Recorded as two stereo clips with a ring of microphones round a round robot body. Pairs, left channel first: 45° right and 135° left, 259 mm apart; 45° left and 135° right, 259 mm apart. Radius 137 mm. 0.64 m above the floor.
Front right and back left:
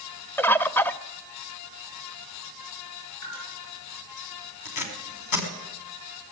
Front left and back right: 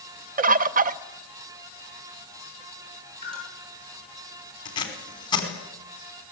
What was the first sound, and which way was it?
A bird, 120° right.